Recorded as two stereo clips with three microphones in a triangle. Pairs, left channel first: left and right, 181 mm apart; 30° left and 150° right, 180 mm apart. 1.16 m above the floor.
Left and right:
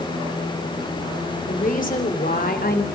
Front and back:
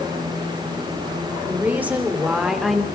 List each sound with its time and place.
1.5 s a woman speaking: 135° left, 4 m; by 2.9 s 120° left, 3 m